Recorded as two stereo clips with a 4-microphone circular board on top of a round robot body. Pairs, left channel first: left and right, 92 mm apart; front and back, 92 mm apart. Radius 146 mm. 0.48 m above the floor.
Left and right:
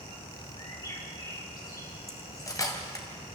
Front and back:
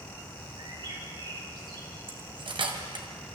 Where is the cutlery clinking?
145° left, 2.5 m.